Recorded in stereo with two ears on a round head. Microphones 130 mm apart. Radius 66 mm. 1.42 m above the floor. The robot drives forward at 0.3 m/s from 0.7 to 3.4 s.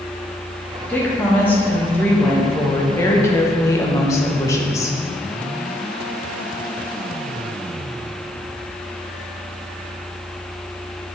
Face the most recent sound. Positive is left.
turn(degrees=20)  # may be behind; listen again after turning